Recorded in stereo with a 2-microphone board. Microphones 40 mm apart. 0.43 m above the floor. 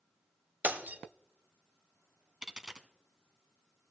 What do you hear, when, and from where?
0.6 s breaking glass: 55° right (ahead or behind), 1.0 m
2.4 s a dropped coin: 20° right (ahead or behind), 0.7 m